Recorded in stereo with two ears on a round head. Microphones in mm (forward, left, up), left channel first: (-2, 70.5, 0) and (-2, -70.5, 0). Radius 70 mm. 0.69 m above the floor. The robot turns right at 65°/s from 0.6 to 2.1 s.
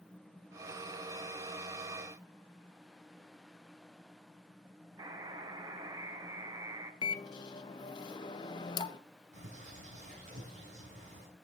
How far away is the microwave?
About 0.6 m.